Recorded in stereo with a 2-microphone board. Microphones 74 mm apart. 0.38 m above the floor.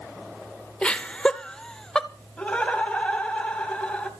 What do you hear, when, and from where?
0.8 s laughter: 15° left (ahead or behind), 0.8 m; by 2.1 s 10° left (ahead or behind), 1.1 m
2.4 s laughter: 15° left (ahead or behind), 3 m